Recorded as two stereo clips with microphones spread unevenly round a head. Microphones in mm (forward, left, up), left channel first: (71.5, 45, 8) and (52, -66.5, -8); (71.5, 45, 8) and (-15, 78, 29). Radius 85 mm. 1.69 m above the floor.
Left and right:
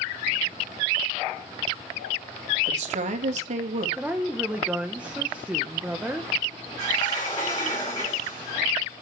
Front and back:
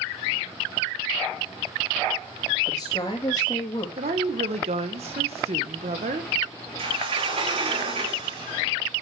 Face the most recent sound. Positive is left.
turn(degrees=145)